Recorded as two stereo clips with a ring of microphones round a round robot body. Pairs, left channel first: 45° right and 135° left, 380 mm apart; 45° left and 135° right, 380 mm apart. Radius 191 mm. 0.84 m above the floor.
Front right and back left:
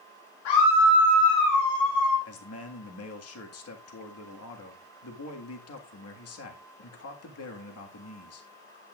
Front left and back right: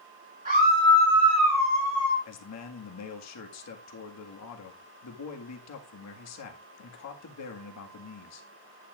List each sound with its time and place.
0.5 s a scream: 65° right, 2.5 m; by 2.1 s 95° right, 3.5 m
2.2 s a man speaking: straight ahead, 1.7 m